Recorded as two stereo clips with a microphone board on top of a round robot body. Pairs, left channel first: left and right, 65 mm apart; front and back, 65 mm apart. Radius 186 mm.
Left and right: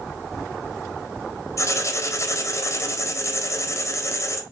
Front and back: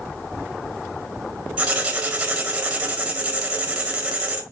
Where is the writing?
110° left, 1.9 m.